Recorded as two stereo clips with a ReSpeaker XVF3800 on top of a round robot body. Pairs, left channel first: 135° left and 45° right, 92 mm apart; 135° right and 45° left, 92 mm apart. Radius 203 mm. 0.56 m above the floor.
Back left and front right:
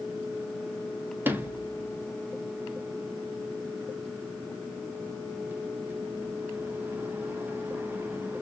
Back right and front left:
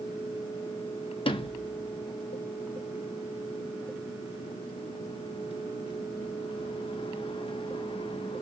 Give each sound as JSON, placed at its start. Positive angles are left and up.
{"t": 1.2, "sound": "a sliding door", "azimuth_deg": -115, "distance_m": 0.7}